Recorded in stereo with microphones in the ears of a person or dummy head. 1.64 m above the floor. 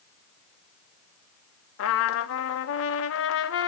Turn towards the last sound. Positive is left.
turn(degrees=75)  # may be behind; listen again after turning